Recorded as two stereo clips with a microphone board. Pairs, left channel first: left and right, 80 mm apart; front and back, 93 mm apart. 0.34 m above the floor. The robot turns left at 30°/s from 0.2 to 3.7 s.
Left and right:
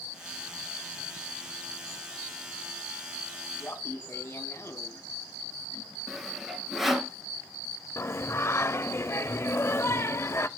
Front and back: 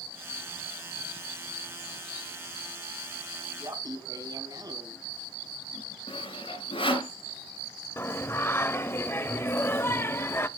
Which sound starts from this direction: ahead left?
Singing, at 8.0 s.